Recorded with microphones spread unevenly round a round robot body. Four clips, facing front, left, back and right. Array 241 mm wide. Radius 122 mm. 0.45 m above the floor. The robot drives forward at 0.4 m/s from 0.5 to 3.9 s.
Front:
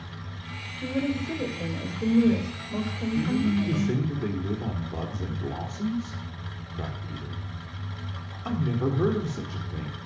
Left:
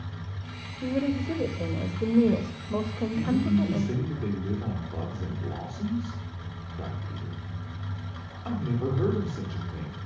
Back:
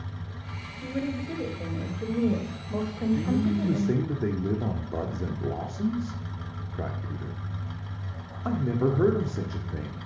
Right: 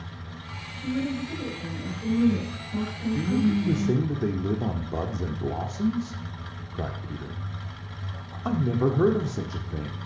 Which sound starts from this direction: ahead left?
A woman speaking, at 0.8 s.